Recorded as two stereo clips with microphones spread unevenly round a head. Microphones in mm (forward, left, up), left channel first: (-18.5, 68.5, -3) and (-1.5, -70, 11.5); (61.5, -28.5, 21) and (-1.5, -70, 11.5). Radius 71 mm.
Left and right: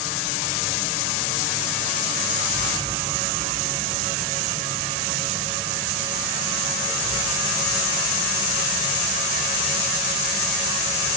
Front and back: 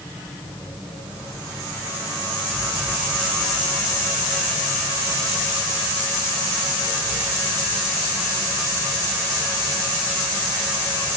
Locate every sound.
Only background noise.